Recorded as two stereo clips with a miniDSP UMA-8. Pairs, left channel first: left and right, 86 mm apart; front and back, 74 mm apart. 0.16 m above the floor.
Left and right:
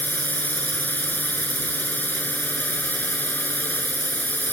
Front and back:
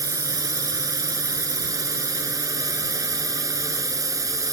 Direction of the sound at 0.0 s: 155° left.